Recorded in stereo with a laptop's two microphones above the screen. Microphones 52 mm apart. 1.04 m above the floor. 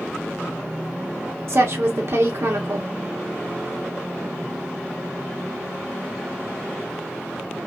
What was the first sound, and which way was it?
A woman speaking, 55° right (ahead or behind).